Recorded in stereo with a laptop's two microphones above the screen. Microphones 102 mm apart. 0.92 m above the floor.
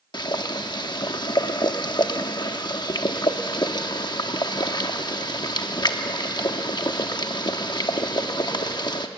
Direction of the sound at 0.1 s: 45° left (ahead or behind).